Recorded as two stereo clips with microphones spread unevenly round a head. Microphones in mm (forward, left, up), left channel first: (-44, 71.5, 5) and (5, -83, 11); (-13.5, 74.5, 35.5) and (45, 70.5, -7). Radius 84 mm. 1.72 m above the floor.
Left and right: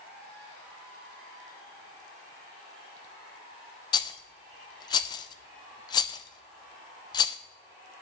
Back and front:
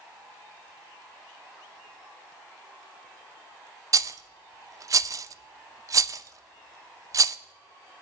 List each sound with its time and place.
3.9 s a rattle: 40° left, 0.6 m